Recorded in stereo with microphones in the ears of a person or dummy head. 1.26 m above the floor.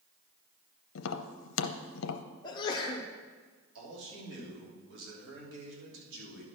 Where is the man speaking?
75° right (ahead or behind), 3 m.